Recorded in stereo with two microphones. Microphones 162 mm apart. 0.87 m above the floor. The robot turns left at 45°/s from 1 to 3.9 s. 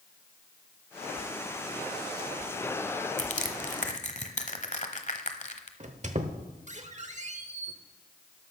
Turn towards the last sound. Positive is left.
turn(degrees=-45)  # may be behind; listen again after turning